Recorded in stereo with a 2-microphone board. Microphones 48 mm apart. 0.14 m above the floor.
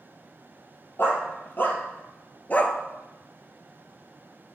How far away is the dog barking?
About 1.6 m.